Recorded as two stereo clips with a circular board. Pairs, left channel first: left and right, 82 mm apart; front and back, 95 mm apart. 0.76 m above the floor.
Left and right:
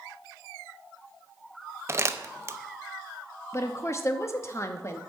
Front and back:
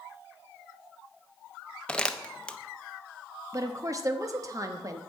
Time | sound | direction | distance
1.9 | crumpling | 70° right | 0.6 m
3.5 | a woman speaking | 135° left | 0.7 m